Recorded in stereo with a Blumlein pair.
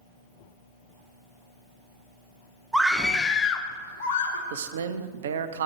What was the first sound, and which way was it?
A scream, 5° right.